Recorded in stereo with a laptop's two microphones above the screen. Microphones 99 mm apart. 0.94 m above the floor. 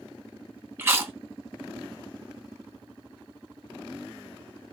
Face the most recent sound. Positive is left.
turn(degrees=-20)  # may be behind; listen again after turning